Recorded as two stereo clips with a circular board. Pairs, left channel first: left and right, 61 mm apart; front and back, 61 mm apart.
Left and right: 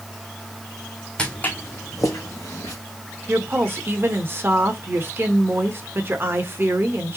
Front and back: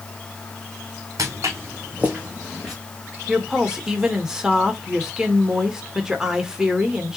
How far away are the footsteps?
About 1.1 m.